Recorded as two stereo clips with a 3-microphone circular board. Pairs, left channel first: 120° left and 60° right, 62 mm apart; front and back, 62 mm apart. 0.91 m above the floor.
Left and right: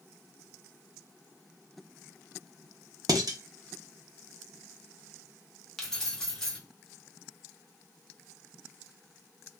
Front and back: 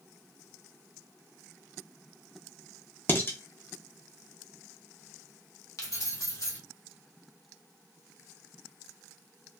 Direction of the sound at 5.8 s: 40° left.